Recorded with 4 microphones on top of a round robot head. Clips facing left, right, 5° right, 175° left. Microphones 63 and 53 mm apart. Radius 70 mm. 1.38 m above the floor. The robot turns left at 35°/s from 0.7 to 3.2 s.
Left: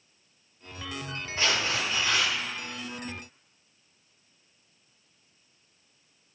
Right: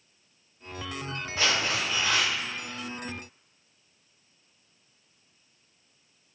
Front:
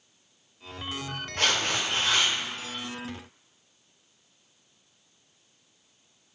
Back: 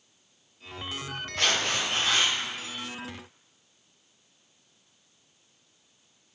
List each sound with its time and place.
1.4 s tearing paper: 70° right, 1.0 m; by 2.3 s 105° right, 1.0 m